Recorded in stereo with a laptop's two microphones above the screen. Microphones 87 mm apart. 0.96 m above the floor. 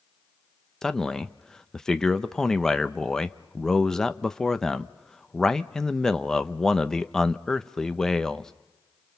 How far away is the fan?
I don't hear a fan.